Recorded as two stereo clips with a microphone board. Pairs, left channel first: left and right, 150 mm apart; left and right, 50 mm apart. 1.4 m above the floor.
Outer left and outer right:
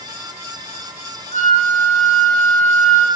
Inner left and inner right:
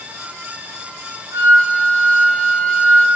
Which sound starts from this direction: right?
A flute, at 1.3 s.